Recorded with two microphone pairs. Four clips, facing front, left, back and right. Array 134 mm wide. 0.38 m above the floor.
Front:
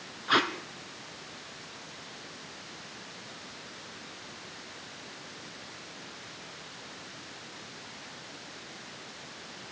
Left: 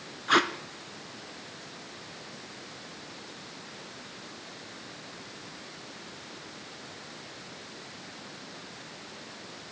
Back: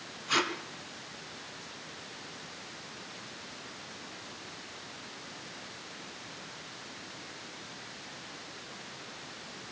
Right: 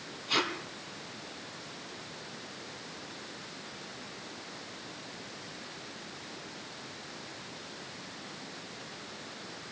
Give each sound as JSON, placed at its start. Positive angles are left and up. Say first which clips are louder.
{"t": 0.3, "sound": "tape being pulled", "louder": "left 8 dB, front 4 dB", "azimuth_deg": 65, "distance_m": 2.0}